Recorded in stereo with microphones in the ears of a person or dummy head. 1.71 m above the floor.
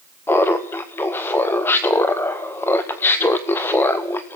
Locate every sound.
0.3 s laughter: 15° left (ahead or behind), 1.0 m